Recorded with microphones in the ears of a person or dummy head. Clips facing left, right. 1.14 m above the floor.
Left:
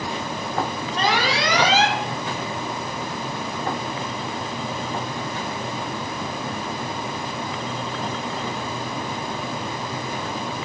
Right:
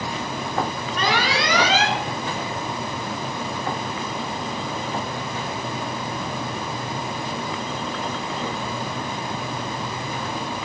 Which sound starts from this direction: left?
An alarm, at 1.0 s.